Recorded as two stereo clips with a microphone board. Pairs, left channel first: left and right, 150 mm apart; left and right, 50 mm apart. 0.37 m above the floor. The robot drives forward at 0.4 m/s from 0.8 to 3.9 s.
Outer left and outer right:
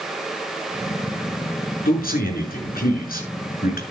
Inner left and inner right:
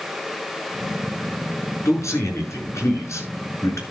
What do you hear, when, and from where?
1.9 s a man speaking: 75° left (ahead or behind), 5 m